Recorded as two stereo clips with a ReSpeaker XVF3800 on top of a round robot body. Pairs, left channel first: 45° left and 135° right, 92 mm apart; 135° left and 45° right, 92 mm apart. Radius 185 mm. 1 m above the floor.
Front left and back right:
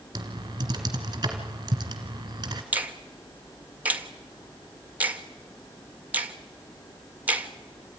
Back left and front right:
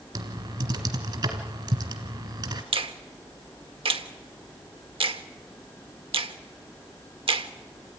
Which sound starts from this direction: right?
Typing on a keyboard, at 0.1 s.